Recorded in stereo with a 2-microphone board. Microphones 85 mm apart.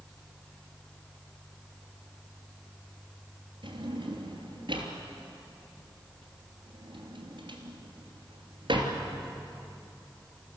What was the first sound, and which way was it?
A drawer, 75° right (ahead or behind).